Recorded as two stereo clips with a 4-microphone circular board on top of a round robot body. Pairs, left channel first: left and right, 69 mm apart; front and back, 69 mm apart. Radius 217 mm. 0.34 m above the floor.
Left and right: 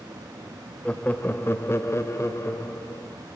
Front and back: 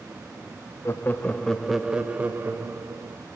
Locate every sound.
0.8 s laughter: 25° left, 1.0 m; by 3.2 s 140° left, 1.5 m